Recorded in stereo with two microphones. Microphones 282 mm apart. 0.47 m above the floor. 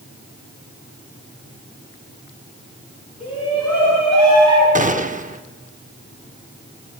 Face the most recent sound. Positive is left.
turn(degrees=-30)  # may be behind; listen again after turning